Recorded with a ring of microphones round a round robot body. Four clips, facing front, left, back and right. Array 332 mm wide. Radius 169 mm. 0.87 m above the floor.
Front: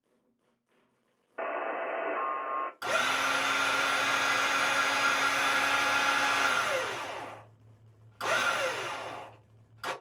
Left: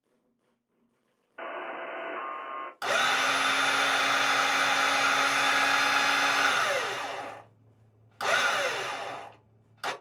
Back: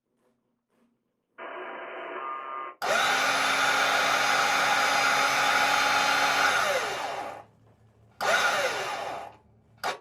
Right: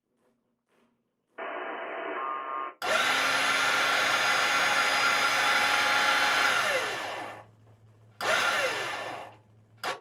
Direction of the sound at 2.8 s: 165° right.